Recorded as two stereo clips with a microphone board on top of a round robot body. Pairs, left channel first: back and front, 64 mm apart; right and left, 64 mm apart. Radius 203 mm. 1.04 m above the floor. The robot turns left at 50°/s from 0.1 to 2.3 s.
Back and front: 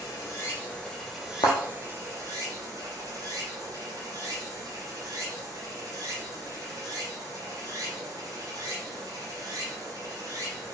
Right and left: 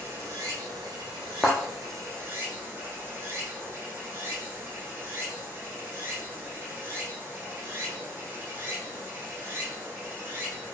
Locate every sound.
0.0 s running water: 140° left, 2 m; by 10.7 s 30° left, 2 m
1.4 s a thud: 170° right, 0.5 m; by 1.6 s 175° right, 0.5 m